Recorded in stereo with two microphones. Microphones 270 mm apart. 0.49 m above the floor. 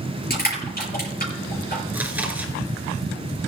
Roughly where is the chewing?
Centre.